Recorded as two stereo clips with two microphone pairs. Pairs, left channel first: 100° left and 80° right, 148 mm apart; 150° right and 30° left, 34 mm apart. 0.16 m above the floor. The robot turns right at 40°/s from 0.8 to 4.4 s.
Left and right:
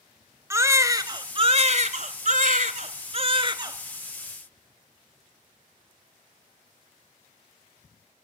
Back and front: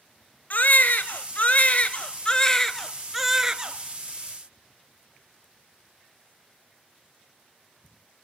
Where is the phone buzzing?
I don't hear a phone buzzing.